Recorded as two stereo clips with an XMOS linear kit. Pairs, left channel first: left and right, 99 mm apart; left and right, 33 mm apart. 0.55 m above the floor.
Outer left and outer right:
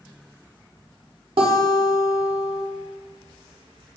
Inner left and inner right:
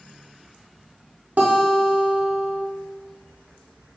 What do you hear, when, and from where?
1.4 s a guitar: 70° right (ahead or behind), 0.7 m